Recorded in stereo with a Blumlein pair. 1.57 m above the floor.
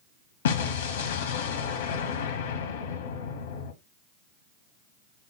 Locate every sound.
0.5 s an explosion: 60° left, 1.1 m